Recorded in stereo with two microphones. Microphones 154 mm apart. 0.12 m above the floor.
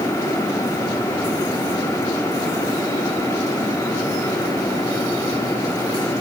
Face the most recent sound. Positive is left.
No sound to turn to.